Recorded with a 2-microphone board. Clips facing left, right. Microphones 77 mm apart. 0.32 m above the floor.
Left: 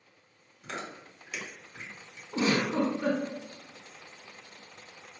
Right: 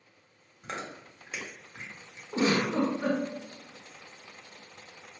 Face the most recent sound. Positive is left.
turn(degrees=-35)  # may be behind; listen again after turning